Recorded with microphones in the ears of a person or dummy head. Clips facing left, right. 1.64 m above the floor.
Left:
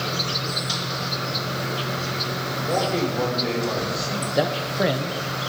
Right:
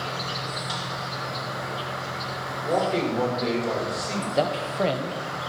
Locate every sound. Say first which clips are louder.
0.0 s an insect: left 4 dB; 40° left (ahead or behind), 0.7 m
2.6 s a man speaking: even; centre (ahead or behind), 5 m
4.3 s a man speaking: left 2 dB; 20° left (ahead or behind), 0.9 m